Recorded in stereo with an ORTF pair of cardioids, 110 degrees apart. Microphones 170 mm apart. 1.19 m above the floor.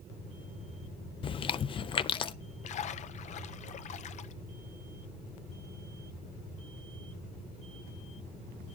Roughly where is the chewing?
Ahead left.